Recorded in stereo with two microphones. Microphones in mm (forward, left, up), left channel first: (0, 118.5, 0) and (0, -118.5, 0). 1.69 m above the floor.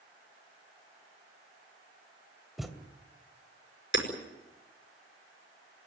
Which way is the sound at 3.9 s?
55° left (ahead or behind).